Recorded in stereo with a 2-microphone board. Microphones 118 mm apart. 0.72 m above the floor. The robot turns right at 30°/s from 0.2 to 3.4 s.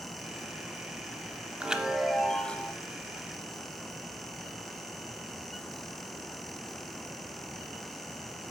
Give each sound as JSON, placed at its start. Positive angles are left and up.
{"t": 1.6, "sound": "a chime", "azimuth_deg": -15, "distance_m": 0.6}